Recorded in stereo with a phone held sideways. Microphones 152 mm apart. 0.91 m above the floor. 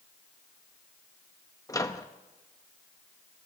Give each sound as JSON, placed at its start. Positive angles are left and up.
{"t": 1.7, "sound": "a microwave", "side_deg": 20, "distance_m": 1.0}